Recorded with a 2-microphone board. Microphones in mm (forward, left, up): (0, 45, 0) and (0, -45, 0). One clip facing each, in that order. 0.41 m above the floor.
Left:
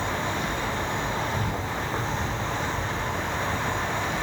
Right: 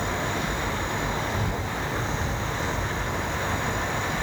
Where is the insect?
45° left (ahead or behind), 0.8 m.